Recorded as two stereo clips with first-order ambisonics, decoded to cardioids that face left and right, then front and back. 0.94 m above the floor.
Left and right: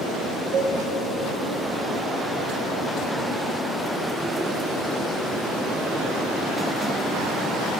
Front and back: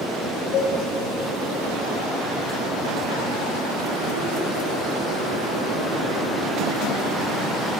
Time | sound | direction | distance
0.5 | a cowbell | 55° right | 1.5 m